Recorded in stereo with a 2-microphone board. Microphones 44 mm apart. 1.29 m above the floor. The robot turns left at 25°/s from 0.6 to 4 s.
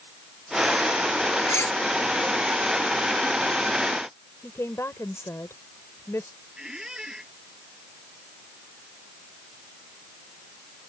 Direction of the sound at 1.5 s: 75° left (ahead or behind).